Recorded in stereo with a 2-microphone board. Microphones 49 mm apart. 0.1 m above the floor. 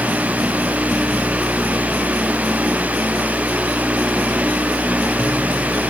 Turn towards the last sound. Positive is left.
No sound to turn to.